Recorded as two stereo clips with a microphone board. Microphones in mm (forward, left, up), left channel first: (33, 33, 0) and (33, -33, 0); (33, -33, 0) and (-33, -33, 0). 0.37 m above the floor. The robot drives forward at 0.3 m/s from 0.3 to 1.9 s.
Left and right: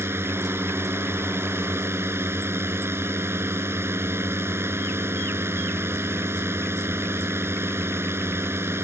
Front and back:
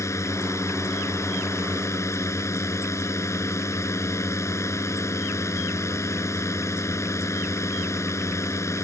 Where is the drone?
40° right.